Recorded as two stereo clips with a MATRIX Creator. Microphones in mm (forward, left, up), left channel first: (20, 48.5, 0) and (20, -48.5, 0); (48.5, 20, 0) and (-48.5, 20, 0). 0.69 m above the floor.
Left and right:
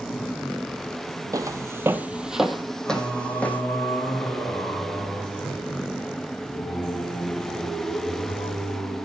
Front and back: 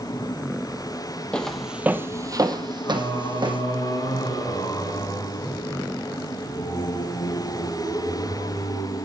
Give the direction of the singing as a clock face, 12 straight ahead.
11 o'clock.